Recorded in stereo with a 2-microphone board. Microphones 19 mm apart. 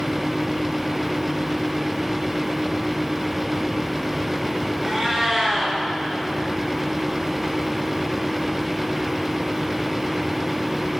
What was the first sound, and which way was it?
A cat meowing, centre (ahead or behind).